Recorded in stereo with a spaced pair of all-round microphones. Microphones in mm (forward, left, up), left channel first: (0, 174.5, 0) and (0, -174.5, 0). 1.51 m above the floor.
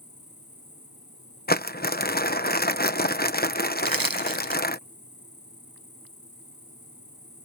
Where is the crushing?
80° right.